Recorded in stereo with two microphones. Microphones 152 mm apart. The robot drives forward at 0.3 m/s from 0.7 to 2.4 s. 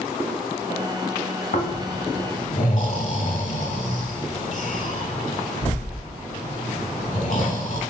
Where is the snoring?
70° left (ahead or behind), 0.8 m; by 7.8 s 55° left (ahead or behind), 0.9 m.